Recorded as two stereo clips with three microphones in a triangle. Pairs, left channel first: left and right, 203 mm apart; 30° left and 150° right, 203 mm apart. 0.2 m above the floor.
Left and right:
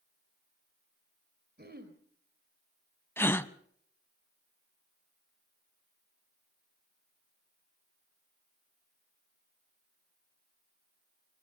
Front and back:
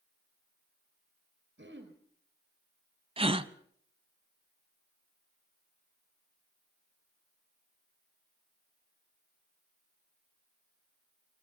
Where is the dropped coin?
No dropped coin in this recording.